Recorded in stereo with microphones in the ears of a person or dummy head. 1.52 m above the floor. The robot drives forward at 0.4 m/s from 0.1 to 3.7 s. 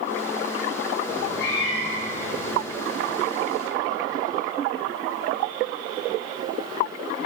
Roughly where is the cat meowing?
Left.